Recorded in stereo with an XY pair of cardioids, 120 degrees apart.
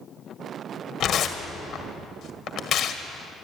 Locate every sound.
1.0 s tearing paper: 50° left, 2 m